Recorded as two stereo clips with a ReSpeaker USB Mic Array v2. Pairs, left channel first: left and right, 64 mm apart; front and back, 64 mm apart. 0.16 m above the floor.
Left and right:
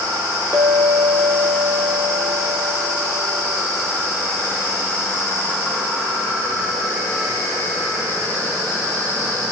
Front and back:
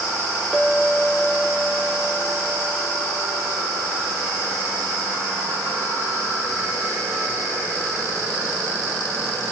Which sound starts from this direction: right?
A clink, at 0.5 s.